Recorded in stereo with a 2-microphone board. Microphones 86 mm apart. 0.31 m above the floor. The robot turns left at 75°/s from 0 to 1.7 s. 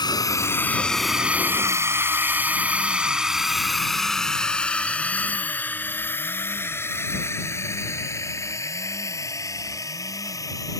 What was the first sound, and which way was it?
A drone, 55° left (ahead or behind).